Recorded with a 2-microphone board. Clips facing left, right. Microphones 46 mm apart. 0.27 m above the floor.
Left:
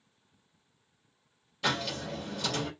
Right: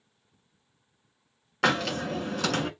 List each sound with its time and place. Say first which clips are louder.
1.6 s a hiss: right 6 dB; 65° right (ahead or behind), 1.4 m